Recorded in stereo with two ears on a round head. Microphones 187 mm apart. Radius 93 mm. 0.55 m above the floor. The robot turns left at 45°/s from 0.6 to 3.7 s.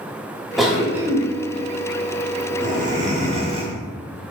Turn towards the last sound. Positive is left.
turn(degrees=-25)  # may be behind; listen again after turning